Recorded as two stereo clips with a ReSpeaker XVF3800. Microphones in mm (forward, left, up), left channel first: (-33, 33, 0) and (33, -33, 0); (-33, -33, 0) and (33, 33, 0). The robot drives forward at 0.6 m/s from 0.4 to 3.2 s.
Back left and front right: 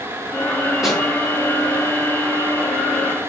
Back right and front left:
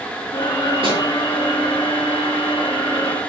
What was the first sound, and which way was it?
A snare drum, 40° left.